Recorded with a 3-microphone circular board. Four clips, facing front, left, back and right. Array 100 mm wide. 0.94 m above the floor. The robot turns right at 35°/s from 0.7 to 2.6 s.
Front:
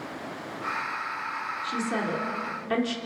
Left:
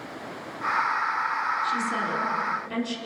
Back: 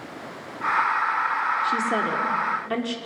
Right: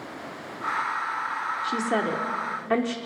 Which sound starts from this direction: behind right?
A woman speaking, at 1.6 s.